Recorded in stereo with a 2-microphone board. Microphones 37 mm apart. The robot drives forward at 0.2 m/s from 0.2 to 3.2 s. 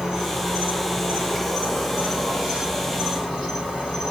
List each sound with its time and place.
0.0 s an insect: 5° right (ahead or behind), 2.5 m